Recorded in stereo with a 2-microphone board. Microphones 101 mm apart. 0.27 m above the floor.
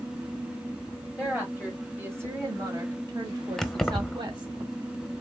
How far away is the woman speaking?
About 1.6 m.